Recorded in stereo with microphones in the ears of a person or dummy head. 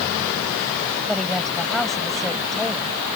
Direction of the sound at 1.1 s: Centre (ahead or behind).